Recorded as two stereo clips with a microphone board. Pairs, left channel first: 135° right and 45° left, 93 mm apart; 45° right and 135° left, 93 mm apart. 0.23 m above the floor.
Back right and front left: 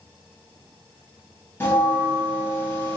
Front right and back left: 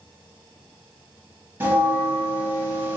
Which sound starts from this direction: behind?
A bell, at 1.6 s.